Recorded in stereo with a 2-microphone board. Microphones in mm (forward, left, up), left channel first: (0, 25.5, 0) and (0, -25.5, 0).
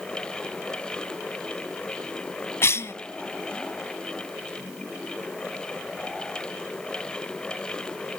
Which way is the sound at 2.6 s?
50° left (ahead or behind).